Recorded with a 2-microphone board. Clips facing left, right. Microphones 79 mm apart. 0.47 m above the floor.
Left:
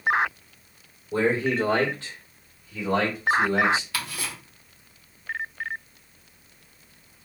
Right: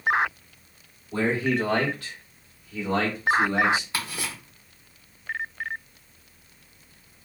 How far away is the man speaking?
About 1.7 m.